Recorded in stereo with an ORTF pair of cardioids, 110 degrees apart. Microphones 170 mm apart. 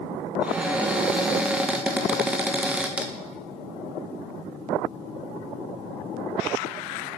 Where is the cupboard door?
5° right, 0.7 m.